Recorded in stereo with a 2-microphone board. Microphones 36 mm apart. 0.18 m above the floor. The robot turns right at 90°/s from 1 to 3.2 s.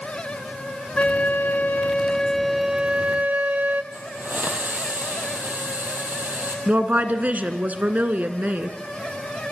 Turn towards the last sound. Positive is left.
turn(degrees=-45)  # may be behind; listen again after turning